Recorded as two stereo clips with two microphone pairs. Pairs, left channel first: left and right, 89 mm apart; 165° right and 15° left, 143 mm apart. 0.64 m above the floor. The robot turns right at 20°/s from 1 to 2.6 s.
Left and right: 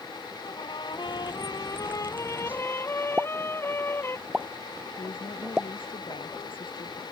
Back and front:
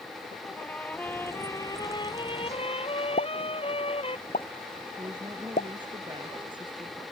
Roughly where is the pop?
Behind.